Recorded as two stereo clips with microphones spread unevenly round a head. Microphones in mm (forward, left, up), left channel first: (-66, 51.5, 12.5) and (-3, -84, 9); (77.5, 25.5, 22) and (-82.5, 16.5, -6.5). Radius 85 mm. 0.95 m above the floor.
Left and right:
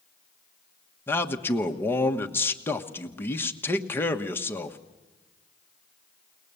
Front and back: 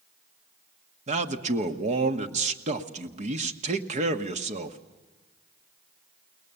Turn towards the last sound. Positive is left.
turn(degrees=-170)